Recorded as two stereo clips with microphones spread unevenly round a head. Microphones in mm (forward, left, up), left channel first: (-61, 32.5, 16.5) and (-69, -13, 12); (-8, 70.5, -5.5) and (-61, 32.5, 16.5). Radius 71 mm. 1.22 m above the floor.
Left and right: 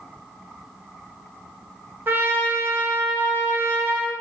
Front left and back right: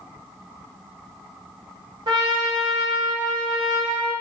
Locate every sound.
2.1 s a trumpet: 105° right, 0.7 m